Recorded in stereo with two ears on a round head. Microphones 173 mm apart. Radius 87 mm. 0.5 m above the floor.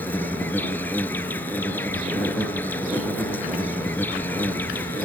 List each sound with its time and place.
0.0 s an insect: 10° left (ahead or behind)